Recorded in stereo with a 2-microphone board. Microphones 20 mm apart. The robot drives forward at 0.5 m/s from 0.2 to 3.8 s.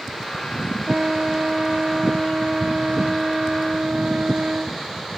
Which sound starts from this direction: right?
A trumpet, at 0.9 s.